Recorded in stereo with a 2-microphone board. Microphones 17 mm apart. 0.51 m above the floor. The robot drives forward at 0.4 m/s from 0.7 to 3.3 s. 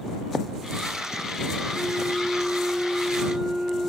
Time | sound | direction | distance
1.7 | a flute | 75° right (ahead or behind) | 5 m